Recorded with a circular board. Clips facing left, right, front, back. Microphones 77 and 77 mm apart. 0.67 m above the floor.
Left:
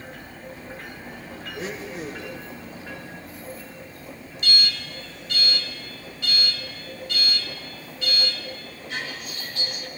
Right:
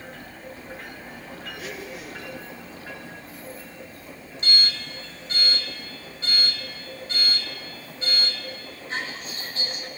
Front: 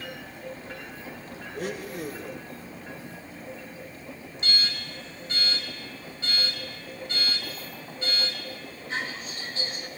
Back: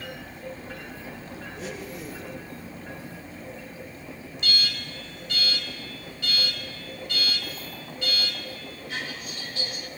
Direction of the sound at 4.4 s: 45° right.